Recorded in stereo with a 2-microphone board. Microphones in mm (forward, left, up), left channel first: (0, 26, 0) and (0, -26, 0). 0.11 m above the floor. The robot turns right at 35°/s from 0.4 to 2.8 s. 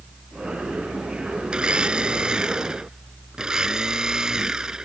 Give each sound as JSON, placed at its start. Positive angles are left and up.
{"t": 1.5, "sound": "a blender", "side_deg": -20}